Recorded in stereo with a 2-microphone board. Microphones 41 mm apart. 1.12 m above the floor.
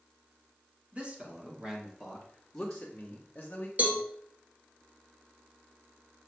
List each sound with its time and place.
0.9 s a man speaking: 30° right (ahead or behind), 2 m; by 3.7 s 45° left (ahead or behind), 1.9 m
3.8 s a cowbell: 35° right (ahead or behind), 1.9 m